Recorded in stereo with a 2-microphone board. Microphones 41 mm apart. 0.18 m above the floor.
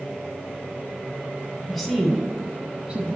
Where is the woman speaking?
5° left (ahead or behind), 1.6 m; by 3.1 s 25° right (ahead or behind), 1.3 m.